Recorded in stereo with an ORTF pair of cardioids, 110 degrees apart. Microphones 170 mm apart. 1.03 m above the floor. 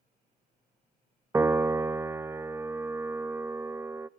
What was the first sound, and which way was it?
A piano, 15° right.